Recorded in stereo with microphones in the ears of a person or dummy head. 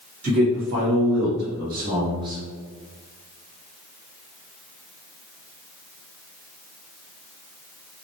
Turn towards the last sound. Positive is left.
turn(degrees=-10)  # may be behind; listen again after turning